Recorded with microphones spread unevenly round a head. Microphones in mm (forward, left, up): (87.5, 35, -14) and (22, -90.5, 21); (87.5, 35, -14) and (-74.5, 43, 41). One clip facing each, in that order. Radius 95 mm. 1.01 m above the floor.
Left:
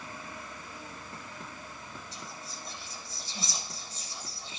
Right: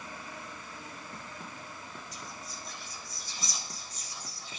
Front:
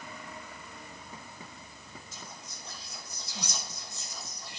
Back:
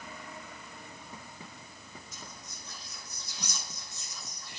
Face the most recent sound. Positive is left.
turn(degrees=0)